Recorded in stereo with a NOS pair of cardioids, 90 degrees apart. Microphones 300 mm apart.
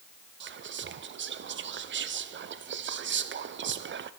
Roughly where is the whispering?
Ahead right.